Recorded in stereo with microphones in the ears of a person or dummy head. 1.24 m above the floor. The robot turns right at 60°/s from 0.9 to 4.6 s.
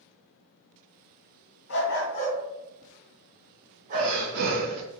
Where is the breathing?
110° right, 2.5 m; by 4.8 s 70° right, 2.5 m.